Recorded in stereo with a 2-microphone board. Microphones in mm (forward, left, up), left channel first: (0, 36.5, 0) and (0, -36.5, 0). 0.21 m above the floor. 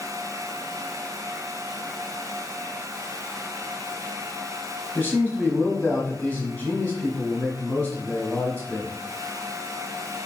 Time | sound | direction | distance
5.0 | a man speaking | 20° left (ahead or behind) | 1.1 m